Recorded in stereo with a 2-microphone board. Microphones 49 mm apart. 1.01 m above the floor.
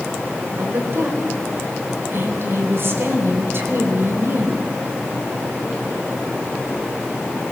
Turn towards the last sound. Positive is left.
turn(degrees=-55)  # may be behind; listen again after turning